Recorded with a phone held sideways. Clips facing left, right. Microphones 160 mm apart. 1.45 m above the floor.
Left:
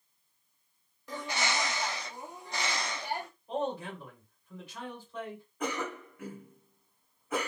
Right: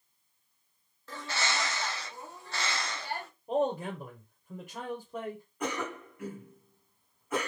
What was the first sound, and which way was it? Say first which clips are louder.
A bird: left 1 dB; 15° left (ahead or behind).